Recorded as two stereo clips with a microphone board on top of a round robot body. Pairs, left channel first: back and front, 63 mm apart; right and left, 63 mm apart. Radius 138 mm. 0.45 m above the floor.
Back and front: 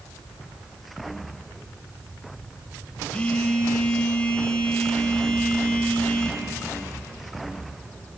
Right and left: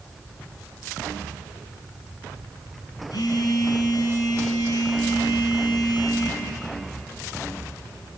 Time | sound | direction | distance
3.1 | a phone buzzing | 105° right | 4.5 m